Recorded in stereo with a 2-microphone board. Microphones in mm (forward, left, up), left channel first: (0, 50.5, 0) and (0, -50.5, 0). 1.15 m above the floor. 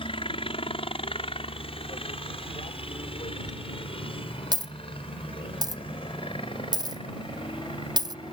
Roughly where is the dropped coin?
Right.